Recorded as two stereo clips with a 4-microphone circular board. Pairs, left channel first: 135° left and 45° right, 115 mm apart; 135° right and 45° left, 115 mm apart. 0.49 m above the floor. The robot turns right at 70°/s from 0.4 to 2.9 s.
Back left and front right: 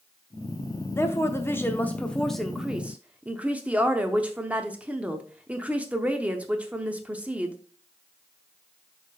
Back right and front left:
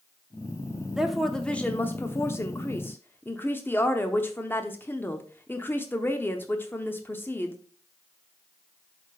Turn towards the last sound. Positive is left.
turn(degrees=-100)